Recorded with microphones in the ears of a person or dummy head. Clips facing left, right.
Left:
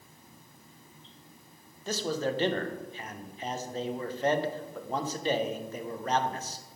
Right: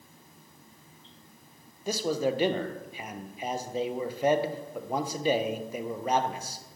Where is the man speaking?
10° right (ahead or behind), 0.8 m.